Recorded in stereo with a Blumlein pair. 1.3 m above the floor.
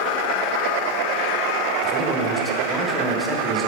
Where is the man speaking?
Straight ahead, 1.4 m.